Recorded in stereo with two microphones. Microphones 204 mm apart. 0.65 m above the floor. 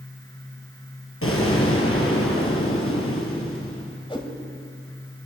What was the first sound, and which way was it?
An explosion, 80° left.